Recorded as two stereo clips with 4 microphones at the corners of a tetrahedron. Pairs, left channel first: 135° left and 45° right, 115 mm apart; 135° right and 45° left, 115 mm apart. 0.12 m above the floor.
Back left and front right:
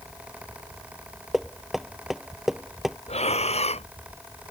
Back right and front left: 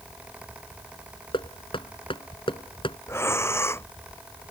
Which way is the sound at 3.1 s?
155° left.